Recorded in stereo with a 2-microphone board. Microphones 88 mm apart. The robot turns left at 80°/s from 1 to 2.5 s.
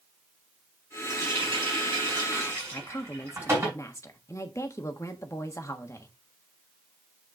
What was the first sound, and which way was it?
A running tap, 40° right.